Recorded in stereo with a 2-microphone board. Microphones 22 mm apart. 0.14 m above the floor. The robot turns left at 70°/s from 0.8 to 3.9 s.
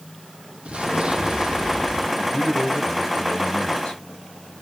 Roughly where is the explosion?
Right.